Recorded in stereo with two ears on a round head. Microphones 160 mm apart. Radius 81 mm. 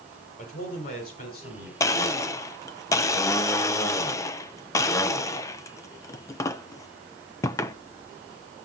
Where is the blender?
20° left (ahead or behind), 0.5 m.